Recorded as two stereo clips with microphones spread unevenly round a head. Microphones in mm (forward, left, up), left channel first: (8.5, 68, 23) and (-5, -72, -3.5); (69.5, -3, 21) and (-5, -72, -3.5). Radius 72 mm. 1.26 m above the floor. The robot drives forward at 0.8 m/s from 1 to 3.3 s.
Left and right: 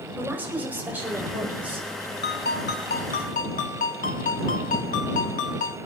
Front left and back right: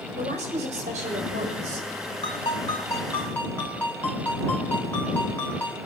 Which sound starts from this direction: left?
A ringtone, at 2.2 s.